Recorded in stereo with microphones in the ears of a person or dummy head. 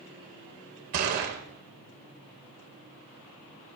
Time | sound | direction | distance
0.9 | a gunshot | 40° right (ahead or behind) | 0.8 m